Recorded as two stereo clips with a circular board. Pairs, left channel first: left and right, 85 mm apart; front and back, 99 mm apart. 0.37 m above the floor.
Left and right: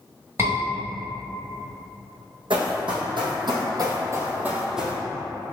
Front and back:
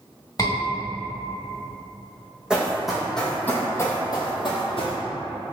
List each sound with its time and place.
0.4 s a scream: 40° right, 1.6 m
2.5 s running footsteps: 100° right, 1.2 m; by 5.0 s straight ahead, 0.9 m